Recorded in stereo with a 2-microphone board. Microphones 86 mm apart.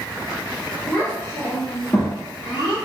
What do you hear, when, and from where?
0.9 s a child speaking: 30° left (ahead or behind), 1.5 m; by 2.8 s 60° left (ahead or behind), 1.3 m